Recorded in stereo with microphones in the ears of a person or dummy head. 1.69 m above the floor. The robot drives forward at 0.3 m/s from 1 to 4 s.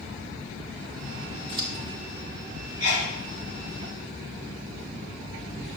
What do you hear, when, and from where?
1.5 s scissors: 30° right (ahead or behind), 1.3 m
2.8 s a sneeze: 75° right (ahead or behind), 4.5 m